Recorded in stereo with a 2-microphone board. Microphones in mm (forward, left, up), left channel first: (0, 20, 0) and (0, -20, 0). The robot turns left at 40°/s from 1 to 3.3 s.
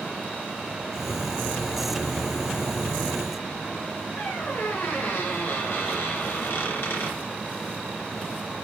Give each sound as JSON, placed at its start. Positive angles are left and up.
{"t": 4.2, "sound": "a squeak", "side_deg": 85, "distance_m": 4.0}